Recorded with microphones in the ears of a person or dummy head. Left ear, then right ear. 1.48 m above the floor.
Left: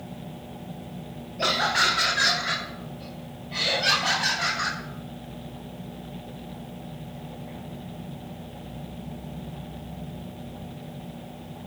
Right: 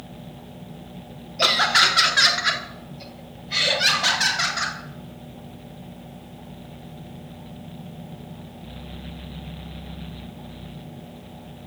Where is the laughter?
40° right (ahead or behind), 1.2 m; by 4.8 s 60° right (ahead or behind), 4.5 m.